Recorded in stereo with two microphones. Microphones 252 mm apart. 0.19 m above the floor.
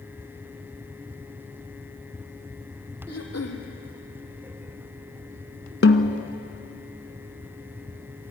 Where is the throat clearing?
85° left, 3 m.